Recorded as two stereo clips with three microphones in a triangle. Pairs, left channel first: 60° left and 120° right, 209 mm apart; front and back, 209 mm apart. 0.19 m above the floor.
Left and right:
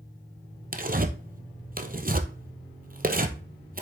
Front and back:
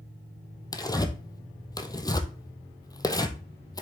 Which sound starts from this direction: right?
Tearing paper, at 0.7 s.